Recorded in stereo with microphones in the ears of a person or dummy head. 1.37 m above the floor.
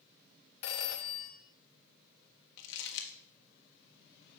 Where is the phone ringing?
55° left (ahead or behind), 1.0 m.